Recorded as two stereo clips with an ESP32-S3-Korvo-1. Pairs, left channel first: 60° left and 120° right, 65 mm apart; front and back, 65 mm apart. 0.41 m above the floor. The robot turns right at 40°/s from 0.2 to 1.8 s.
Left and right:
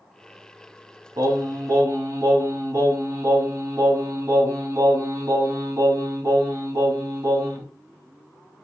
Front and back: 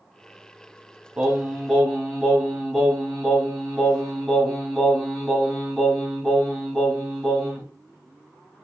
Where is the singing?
110° right, 2 m; by 7.6 s 85° right, 2 m.